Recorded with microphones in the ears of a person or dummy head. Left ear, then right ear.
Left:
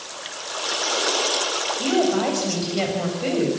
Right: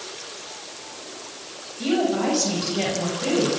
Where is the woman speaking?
20° left (ahead or behind), 6.5 m.